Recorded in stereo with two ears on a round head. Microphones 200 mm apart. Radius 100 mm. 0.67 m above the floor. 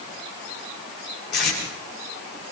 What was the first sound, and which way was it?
Tape being pulled, 50° left (ahead or behind).